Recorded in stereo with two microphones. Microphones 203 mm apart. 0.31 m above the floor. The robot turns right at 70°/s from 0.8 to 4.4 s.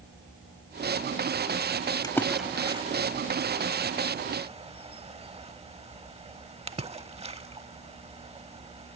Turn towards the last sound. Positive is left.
turn(degrees=-30)  # may be behind; listen again after turning